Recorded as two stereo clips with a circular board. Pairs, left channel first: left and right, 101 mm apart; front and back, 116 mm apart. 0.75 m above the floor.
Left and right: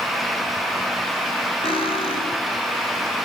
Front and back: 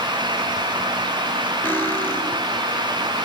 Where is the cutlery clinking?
75° left, 3 m.